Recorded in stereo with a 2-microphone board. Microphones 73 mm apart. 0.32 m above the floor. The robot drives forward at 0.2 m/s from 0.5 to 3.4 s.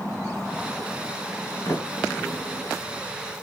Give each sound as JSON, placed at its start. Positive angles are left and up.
{"t": 1.6, "sound": "a sliding door", "side_deg": 45, "distance_m": 2.0}